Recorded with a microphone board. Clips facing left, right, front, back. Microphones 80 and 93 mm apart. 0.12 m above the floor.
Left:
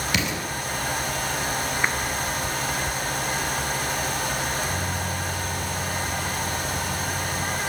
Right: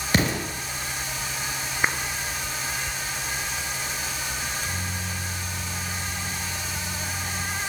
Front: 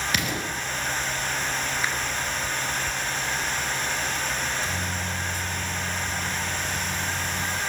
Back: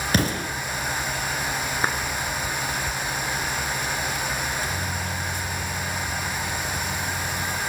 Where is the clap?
165° right, 1.7 m.